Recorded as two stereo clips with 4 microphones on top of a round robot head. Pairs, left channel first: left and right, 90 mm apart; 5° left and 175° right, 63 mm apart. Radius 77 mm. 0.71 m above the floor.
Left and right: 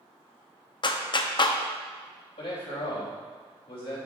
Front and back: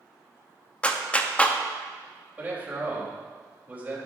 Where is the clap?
70° left, 0.9 m.